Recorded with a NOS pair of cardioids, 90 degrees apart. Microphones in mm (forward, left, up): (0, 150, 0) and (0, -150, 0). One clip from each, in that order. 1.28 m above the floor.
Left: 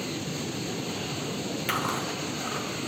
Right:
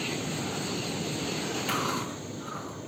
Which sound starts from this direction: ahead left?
Chewing, at 1.7 s.